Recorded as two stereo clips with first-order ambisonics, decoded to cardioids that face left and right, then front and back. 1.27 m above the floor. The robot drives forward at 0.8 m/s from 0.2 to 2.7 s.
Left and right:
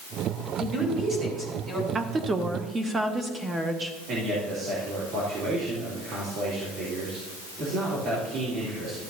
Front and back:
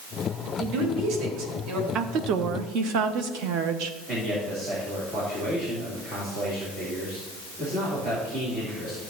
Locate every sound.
0.6 s a man speaking: 150° right, 3.5 m; by 1.9 s 155° right, 4 m
1.9 s a woman speaking: 145° right, 0.6 m; by 4.0 s 165° right, 1.1 m
4.1 s a man speaking: 130° right, 3 m